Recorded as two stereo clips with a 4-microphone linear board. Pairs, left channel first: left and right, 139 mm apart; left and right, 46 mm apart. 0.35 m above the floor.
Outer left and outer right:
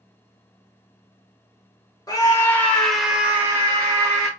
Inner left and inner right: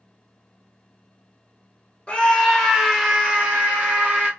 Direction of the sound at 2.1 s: 25° left (ahead or behind).